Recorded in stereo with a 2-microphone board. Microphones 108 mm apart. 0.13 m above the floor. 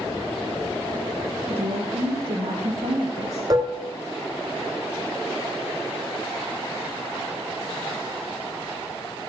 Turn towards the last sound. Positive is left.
turn(degrees=-40)  # may be behind; listen again after turning